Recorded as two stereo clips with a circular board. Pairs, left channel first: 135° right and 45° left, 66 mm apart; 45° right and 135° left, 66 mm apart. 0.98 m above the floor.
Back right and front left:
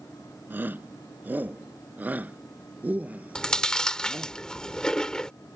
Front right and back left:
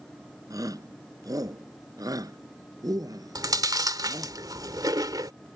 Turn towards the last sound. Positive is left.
turn(degrees=145)